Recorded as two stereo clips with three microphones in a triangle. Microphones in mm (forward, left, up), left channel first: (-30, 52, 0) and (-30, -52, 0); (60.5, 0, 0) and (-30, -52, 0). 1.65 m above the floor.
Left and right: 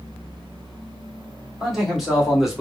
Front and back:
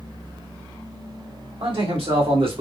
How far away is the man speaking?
About 2 m.